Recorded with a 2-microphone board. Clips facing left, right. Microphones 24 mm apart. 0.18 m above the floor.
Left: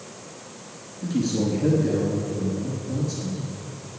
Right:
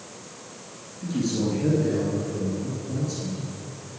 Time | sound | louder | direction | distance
1.0 | a man speaking | left 2 dB | 5° left (ahead or behind) | 2.5 m